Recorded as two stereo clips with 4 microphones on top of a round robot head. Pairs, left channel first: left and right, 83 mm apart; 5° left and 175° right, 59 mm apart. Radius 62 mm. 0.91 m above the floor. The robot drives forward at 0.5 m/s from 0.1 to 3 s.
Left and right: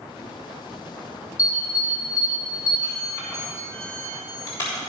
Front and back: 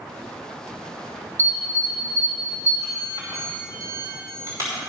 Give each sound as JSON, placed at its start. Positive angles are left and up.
{"t": 1.4, "sound": "an alarm", "azimuth_deg": 145, "distance_m": 5.0}